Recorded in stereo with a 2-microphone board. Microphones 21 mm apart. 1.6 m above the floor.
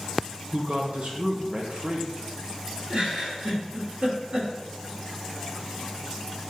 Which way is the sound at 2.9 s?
70° right (ahead or behind).